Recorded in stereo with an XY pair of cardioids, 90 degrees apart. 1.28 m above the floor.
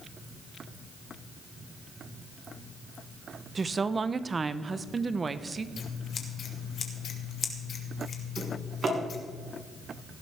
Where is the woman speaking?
35° right, 0.9 m.